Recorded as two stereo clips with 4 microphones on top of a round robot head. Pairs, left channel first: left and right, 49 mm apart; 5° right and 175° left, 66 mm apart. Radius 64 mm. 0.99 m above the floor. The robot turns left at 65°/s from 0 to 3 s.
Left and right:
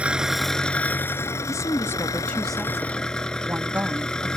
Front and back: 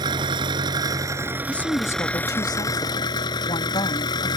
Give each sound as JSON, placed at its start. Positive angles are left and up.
{"t": 0.0, "sound": "an engine running", "azimuth_deg": -155}
{"t": 1.5, "sound": "a woman speaking", "azimuth_deg": 75}